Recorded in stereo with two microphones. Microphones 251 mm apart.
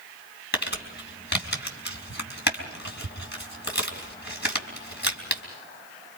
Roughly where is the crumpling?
Left.